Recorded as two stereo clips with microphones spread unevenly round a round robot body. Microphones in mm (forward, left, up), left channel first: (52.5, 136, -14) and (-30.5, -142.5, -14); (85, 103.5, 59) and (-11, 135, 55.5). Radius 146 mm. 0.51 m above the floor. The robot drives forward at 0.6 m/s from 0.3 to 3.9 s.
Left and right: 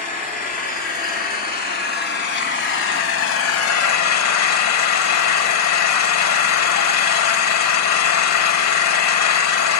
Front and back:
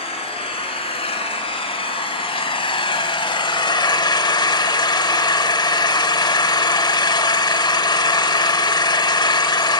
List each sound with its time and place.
0.0 s an engine running: 10° left, 3 m; by 9.8 s 35° left, 0.9 m